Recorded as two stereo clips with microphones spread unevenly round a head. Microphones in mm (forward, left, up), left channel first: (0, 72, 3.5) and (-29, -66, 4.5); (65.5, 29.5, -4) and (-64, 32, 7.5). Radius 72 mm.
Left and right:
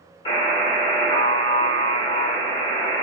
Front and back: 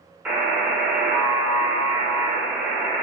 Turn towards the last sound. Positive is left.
turn(degrees=110)